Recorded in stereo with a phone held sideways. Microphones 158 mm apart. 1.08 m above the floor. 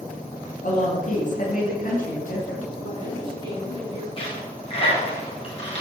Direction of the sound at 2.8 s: 30° right (ahead or behind).